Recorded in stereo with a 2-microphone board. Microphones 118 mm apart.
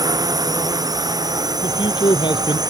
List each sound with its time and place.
0.0 s a drone: 35° right (ahead or behind)
1.6 s a man speaking: 40° left (ahead or behind)